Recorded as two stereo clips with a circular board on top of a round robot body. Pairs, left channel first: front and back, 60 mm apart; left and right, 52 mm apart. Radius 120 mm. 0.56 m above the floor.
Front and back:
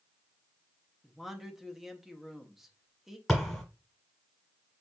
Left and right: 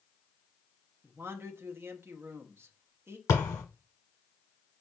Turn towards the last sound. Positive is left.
turn(degrees=85)